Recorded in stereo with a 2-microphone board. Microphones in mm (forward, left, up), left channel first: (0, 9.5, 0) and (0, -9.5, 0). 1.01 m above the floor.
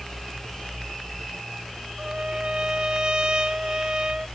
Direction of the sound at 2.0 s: 55° right (ahead or behind).